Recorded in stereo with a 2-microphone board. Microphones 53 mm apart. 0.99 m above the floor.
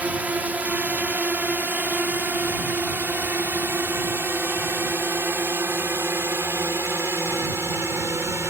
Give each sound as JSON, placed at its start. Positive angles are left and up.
{"t": 0.0, "sound": "a drone", "side_deg": -30}